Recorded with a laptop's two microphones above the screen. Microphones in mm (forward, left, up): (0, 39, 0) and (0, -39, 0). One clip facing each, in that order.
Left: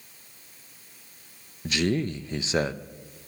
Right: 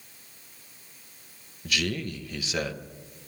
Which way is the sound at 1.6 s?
30° left (ahead or behind).